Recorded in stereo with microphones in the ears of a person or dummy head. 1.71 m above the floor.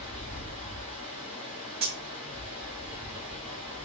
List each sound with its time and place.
0.0 s running water: 10° left (ahead or behind), 1.3 m
1.8 s cutlery clinking: 30° right (ahead or behind), 0.9 m